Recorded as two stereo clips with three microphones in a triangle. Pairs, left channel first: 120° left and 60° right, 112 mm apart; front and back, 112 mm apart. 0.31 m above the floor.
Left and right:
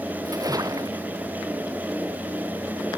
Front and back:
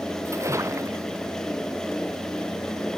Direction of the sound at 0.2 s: 120° right.